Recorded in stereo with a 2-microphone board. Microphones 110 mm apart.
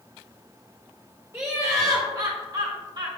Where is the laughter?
25° right (ahead or behind), 1.3 m; by 3.1 s 45° right (ahead or behind), 1.7 m.